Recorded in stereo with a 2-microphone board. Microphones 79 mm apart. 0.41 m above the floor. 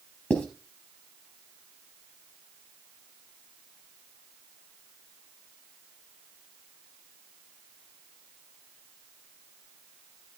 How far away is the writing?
About 3.5 m.